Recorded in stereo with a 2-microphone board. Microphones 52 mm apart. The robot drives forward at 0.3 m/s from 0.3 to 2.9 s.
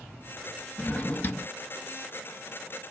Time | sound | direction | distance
0.8 | a drawer | 30° left (ahead or behind) | 0.6 m